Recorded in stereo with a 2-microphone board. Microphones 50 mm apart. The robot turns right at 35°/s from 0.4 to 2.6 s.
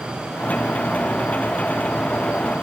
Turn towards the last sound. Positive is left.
No sound to turn to.